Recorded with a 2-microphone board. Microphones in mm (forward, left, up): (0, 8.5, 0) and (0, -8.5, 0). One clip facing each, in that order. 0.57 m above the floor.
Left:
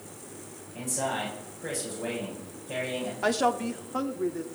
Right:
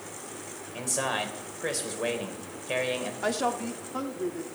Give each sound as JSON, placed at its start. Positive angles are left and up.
{"t": 0.7, "sound": "a man speaking", "side_deg": -65, "distance_m": 3.0}
{"t": 3.2, "sound": "a woman speaking", "side_deg": 10, "distance_m": 0.9}